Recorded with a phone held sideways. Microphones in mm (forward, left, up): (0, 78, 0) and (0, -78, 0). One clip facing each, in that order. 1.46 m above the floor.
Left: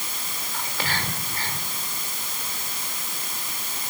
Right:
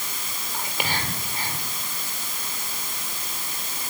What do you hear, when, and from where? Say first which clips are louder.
0.5 s whispering: right 1 dB; 15° right (ahead or behind), 4.5 m